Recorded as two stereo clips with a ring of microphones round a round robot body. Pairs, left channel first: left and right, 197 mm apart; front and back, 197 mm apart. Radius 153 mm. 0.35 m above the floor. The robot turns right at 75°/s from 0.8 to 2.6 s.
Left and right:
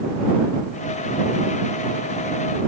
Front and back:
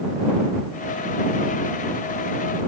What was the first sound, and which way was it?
Only background noise.